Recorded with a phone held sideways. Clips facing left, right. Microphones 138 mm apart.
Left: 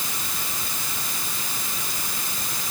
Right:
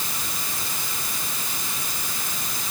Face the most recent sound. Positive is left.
No sound to turn to.